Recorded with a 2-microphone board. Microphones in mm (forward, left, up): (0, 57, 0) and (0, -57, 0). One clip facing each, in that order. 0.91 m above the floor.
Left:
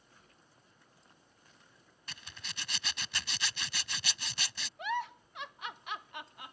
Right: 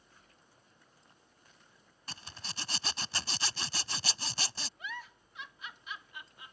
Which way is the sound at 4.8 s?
65° left (ahead or behind).